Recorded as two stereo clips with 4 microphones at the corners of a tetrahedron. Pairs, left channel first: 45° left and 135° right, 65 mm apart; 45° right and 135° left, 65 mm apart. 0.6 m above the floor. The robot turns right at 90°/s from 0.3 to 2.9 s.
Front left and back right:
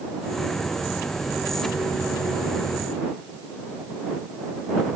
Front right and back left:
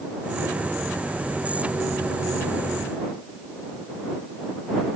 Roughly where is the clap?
No clap in this recording.